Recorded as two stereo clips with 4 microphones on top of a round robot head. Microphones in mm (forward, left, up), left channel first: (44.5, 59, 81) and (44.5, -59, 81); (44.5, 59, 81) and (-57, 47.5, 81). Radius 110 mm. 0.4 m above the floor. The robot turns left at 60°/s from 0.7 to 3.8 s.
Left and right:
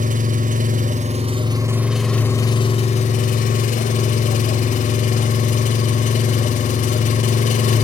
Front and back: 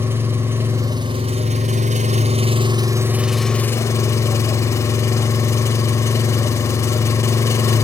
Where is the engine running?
100° right, 0.7 m; by 7.8 s 70° left, 0.7 m.